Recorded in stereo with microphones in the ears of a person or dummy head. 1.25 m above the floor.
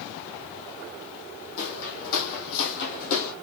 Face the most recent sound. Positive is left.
turn(degrees=45)  # may be behind; listen again after turning